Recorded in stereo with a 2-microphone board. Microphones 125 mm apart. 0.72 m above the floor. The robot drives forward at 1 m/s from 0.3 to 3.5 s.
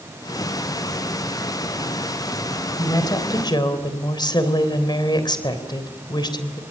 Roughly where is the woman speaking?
Left.